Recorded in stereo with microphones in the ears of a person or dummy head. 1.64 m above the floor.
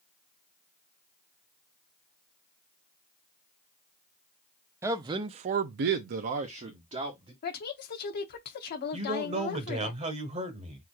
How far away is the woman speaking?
About 1.0 m.